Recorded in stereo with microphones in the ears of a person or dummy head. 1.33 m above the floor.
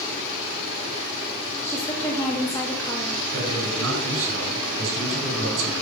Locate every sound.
1.6 s a woman speaking: 15° left (ahead or behind), 2 m
3.3 s a man speaking: 85° right, 7.5 m